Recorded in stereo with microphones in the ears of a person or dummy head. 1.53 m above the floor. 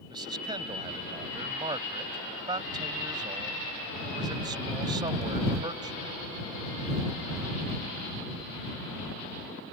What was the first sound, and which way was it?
A man speaking, 25° right (ahead or behind).